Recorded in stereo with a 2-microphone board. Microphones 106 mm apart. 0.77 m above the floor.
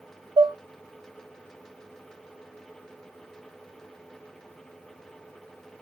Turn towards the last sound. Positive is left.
turn(degrees=-45)  # may be behind; listen again after turning